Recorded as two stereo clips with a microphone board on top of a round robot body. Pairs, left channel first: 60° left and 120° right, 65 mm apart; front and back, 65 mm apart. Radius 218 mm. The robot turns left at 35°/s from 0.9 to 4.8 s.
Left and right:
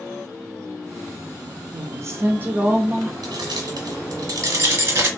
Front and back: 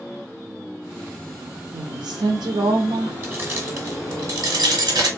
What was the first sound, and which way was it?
A woman speaking, 160° right.